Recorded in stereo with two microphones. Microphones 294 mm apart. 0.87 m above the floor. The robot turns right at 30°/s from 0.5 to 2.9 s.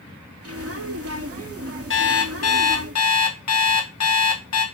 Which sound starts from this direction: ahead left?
An alarm clock, at 1.9 s.